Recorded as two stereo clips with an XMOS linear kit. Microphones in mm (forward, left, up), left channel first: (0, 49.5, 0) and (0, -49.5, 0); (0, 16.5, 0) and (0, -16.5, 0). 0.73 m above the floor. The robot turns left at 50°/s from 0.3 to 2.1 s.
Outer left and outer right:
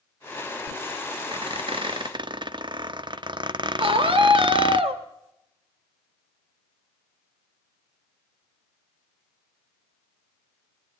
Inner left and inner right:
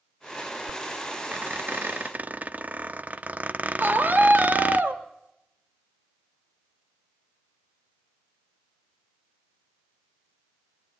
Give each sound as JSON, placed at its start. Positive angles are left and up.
{"t": 1.3, "sound": "a squeak", "side_deg": -65, "distance_m": 0.8}
{"t": 3.8, "sound": "a scream", "side_deg": -75, "distance_m": 2.5}